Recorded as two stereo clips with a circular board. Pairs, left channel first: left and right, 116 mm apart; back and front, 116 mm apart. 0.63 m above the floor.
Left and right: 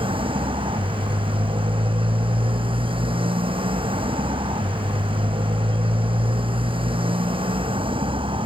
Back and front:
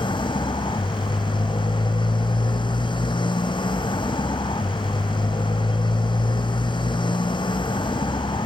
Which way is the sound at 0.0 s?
130° right.